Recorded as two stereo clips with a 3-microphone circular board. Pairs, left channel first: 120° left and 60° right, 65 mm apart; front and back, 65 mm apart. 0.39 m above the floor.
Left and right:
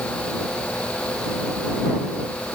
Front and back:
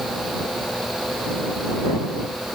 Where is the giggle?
No giggle in this recording.